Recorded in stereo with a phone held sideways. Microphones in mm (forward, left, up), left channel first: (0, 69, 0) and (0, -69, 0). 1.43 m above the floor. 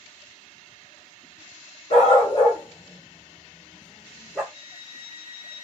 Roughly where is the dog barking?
Left.